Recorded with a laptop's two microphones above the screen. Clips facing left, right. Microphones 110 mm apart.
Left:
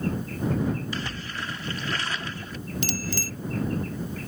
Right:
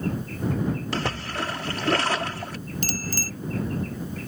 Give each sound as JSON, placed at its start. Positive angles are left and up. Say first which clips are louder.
{"t": 0.9, "sound": "a splash", "louder": "right 5 dB", "side_deg": -70}
{"t": 2.8, "sound": "a bicycle bell", "louder": "left 1 dB", "side_deg": -45}